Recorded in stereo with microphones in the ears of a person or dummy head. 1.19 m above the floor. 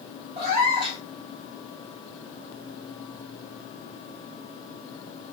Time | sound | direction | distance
0.4 | a cat meowing | 35° right (ahead or behind) | 1.3 m